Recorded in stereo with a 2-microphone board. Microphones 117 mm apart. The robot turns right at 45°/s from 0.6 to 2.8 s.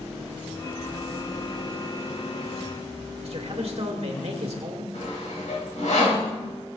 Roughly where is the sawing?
Left.